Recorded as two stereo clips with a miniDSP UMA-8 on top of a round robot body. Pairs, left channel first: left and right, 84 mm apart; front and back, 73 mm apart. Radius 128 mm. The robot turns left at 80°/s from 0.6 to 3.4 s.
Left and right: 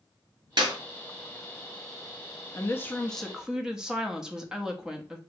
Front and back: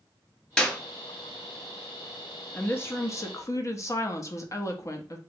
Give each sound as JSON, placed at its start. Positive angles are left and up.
{"t": 0.6, "sound": "a clap", "azimuth_deg": -85, "distance_m": 1.5}
{"t": 2.5, "sound": "a woman speaking", "azimuth_deg": 60, "distance_m": 0.8}